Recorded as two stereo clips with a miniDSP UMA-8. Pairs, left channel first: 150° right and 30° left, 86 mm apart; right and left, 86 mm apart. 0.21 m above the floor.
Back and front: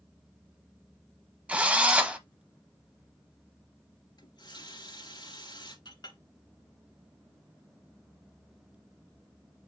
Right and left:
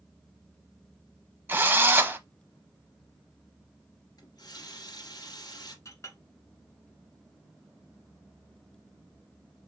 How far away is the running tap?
About 2 m.